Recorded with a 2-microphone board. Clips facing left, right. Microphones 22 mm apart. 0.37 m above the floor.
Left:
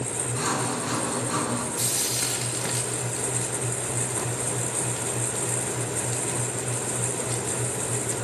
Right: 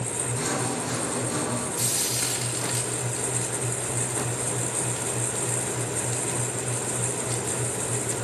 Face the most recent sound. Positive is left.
turn(degrees=20)  # may be behind; listen again after turning